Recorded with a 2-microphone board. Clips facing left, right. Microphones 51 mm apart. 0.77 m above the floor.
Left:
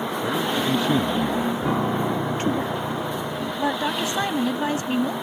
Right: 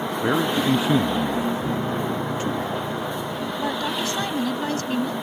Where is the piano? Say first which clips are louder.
Left 2 dB; 50° left (ahead or behind).